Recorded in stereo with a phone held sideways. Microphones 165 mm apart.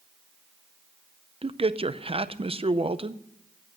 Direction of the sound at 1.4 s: 35° right (ahead or behind).